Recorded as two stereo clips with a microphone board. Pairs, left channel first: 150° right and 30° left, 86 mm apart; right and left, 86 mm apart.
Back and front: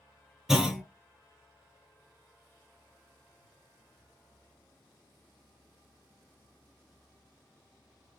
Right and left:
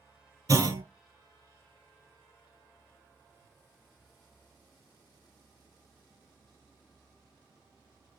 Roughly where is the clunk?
Left.